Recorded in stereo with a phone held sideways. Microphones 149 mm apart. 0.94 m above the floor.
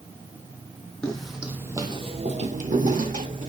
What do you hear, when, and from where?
1.0 s footsteps: 5° left (ahead or behind), 2 m; by 3.5 s 60° right (ahead or behind), 2.5 m